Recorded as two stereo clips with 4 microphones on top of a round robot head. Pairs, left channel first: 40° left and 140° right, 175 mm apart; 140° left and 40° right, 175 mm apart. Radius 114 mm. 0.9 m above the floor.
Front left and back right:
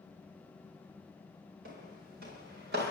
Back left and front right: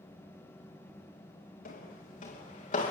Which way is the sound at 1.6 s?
175° right.